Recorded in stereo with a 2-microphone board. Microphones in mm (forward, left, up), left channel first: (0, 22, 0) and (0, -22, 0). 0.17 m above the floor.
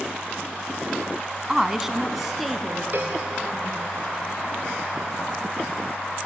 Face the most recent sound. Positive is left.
turn(degrees=-50)  # may be behind; listen again after turning